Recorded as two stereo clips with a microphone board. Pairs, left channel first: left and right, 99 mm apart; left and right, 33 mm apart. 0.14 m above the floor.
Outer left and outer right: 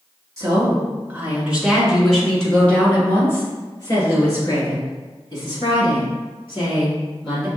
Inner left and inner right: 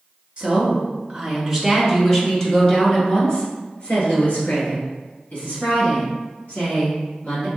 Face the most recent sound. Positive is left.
turn(degrees=55)  # may be behind; listen again after turning